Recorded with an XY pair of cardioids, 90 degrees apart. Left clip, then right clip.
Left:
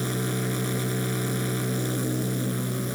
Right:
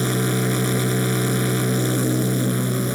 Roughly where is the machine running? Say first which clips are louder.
Right 7 dB; ahead right.